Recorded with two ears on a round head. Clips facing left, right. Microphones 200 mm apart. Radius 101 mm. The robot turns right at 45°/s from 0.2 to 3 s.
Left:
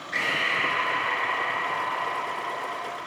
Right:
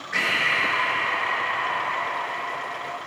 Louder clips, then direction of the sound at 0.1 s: Right 1 dB; 175° right.